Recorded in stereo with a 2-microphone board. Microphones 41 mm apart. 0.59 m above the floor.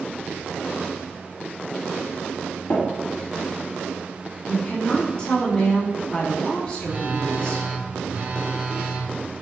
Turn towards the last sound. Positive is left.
turn(degrees=-40)  # may be behind; listen again after turning